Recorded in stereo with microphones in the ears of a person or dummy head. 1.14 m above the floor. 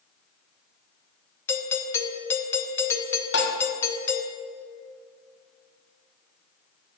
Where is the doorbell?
15° left (ahead or behind), 0.7 m.